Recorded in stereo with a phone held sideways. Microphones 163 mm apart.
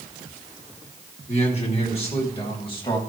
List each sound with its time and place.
1.3 s a man speaking: 45° left (ahead or behind), 3.5 m; by 3.0 s 30° left (ahead or behind), 3 m